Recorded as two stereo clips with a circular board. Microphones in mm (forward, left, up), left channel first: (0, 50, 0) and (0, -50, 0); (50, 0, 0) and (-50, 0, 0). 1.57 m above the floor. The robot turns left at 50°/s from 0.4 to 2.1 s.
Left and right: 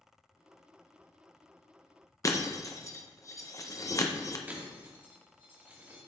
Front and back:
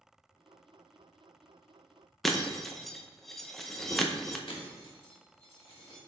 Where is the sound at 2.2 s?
85° left, 0.7 m.